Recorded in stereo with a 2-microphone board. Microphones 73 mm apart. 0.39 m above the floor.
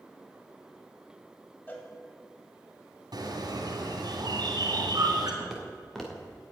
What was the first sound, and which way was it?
A cowbell, 25° left (ahead or behind).